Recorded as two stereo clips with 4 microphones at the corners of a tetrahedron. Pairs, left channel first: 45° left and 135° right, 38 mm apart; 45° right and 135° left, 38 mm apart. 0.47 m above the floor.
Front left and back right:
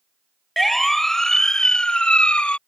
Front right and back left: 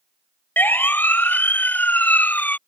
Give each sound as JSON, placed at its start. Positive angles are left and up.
{"t": 0.6, "sound": "a siren", "azimuth_deg": -40}